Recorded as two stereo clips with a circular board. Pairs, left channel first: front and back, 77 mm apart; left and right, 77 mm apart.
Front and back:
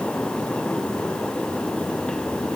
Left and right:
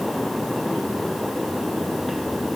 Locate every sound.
Only background noise.